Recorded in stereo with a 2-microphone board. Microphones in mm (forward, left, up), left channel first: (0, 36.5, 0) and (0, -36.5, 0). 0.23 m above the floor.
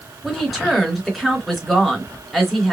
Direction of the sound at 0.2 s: Centre (ahead or behind).